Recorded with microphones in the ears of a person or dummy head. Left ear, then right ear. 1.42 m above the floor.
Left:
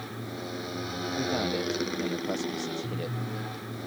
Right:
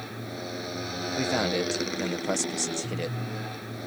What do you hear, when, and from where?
0.0 s a motorcycle: 10° right (ahead or behind)
1.2 s a man speaking: 55° right (ahead or behind)